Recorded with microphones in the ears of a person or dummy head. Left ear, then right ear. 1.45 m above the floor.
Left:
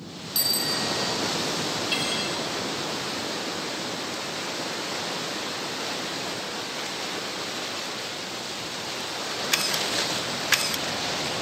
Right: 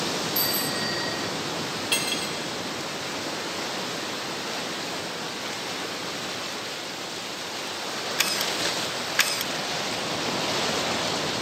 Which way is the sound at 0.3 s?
15° left (ahead or behind).